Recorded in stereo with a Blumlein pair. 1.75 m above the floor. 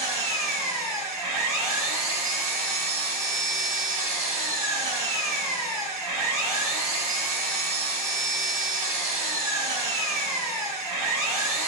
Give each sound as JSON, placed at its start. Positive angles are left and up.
{"t": 0.0, "sound": "an engine running", "azimuth_deg": -55, "distance_m": 3.5}